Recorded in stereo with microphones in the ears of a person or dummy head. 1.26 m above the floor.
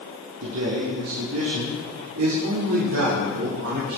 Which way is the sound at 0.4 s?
85° right.